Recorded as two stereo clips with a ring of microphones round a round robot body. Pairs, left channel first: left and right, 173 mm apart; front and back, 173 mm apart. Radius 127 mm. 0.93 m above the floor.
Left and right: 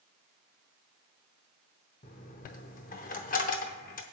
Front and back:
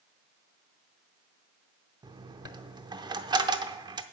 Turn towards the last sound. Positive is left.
turn(degrees=125)